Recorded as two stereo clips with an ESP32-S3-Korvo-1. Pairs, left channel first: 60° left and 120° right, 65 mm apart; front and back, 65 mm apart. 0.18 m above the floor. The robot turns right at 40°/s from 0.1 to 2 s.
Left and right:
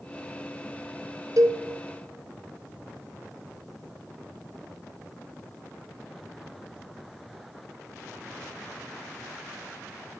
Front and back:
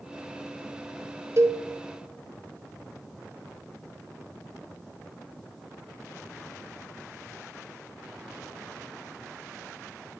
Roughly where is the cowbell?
Behind right.